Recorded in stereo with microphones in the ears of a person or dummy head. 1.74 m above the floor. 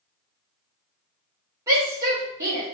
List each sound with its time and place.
1.7 s a shout: 20° right (ahead or behind), 1.2 m